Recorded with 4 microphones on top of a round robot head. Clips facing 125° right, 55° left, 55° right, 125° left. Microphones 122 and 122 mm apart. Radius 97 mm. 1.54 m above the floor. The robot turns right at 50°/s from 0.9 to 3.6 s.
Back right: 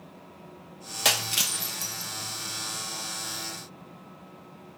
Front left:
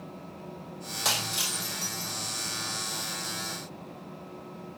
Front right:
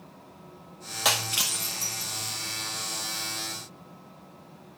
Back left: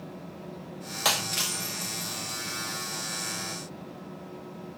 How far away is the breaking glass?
About 0.8 m.